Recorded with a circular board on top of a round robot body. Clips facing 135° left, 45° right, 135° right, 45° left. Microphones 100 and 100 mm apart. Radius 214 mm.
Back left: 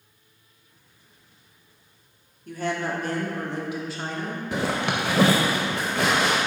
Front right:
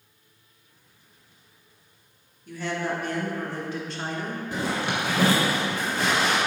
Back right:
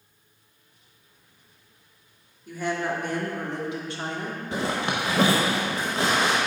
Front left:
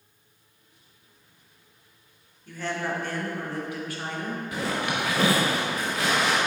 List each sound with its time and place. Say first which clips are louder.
2.5 s a woman speaking: back left 1 dB, back right 3 dB; 150° left, 1.9 m; by 4.4 s 100° right, 1.4 m
4.5 s a zipper: back left 2 dB, back right 2 dB; 160° left, 0.6 m